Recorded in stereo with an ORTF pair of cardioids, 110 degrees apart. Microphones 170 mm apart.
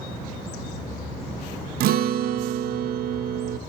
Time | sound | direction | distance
1.8 | a guitar | 65° right | 0.5 m